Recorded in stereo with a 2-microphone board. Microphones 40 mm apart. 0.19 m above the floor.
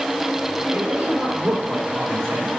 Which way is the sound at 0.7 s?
70° right (ahead or behind).